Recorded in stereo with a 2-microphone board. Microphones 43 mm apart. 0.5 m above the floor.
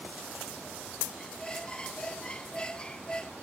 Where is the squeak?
20° left (ahead or behind).